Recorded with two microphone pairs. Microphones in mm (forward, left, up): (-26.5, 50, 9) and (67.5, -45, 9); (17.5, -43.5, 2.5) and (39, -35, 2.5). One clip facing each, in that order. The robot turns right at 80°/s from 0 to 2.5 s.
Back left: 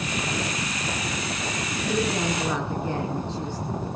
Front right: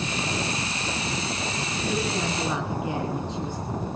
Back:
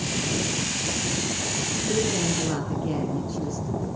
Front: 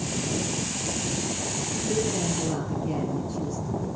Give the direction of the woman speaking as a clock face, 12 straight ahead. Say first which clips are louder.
Back left 3 dB, back 2 dB; 6 o'clock.